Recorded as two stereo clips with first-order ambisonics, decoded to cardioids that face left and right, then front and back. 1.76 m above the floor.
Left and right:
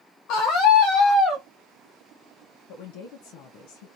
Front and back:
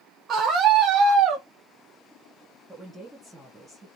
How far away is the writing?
I don't hear writing.